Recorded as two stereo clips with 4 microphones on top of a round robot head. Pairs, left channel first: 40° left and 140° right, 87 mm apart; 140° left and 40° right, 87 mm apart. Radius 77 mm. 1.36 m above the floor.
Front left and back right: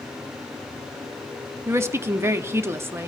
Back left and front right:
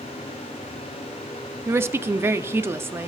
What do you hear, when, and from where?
1.7 s a woman speaking: 90° right, 0.6 m